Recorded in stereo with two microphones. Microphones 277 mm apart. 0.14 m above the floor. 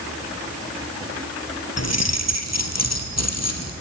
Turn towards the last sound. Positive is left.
turn(degrees=65)  # may be behind; listen again after turning